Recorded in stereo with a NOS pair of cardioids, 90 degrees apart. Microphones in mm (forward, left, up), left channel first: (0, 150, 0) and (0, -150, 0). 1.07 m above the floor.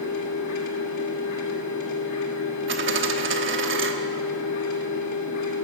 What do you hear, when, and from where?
0.0 s a machine running: 70° left, 1.8 m
2.7 s a dropped coin: 45° right, 1.0 m